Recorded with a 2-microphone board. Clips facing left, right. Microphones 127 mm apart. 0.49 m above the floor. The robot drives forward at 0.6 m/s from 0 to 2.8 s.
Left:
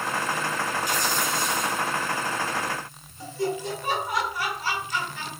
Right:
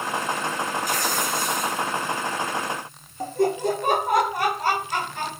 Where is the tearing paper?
50° right (ahead or behind), 5.5 m; by 1.9 s 55° right (ahead or behind), 5 m.